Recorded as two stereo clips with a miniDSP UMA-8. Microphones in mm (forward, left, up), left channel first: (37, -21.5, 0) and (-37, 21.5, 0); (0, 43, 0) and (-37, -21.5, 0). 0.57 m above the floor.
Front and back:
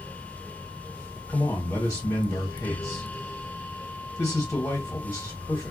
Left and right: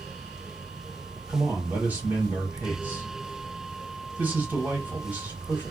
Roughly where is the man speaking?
Right.